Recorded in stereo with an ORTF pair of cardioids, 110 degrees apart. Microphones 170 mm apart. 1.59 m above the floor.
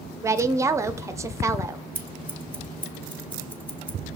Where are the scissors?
10° left, 1.7 m.